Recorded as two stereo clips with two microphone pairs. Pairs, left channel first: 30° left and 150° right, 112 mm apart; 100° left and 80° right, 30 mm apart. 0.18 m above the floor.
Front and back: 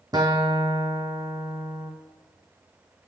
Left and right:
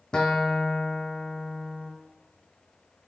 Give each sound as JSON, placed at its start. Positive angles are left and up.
{"t": 0.1, "sound": "a guitar", "azimuth_deg": 160, "distance_m": 1.5}